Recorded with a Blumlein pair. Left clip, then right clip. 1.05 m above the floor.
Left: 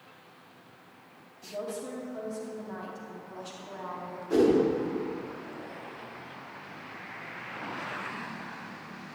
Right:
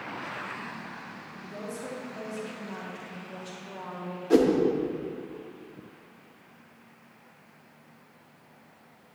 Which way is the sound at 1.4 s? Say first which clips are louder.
Left 3 dB; 5° left.